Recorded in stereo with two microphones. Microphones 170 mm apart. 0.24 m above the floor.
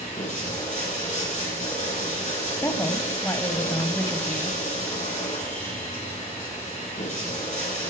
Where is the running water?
45° left (ahead or behind), 7 m.